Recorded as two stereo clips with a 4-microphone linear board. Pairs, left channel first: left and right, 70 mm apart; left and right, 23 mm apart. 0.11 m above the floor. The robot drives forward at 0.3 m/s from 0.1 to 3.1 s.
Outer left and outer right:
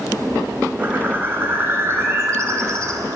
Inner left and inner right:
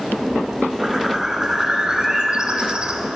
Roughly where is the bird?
Right.